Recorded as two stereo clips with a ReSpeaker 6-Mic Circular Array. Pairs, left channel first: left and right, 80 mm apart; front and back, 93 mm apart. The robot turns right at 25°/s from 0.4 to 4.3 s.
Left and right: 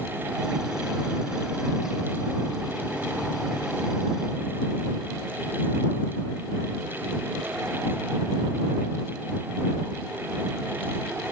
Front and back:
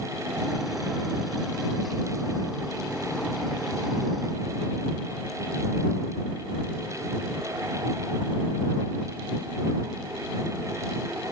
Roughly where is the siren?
No siren in this recording.